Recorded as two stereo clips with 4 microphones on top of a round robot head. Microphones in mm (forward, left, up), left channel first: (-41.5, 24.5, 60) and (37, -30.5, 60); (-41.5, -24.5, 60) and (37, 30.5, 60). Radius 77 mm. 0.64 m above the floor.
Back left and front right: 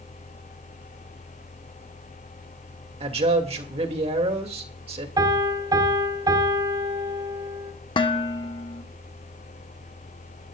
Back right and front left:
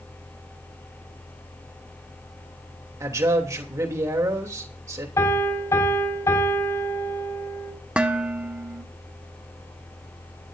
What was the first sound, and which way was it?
A man speaking, 25° right.